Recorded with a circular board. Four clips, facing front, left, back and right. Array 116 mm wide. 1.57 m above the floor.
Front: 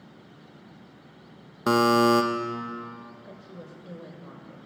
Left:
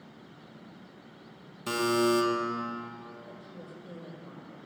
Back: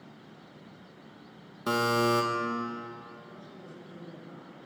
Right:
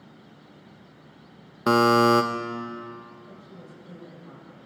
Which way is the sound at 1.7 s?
60° right.